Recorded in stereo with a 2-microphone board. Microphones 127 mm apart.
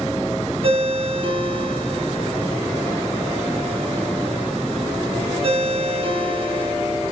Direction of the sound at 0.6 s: 45° right (ahead or behind).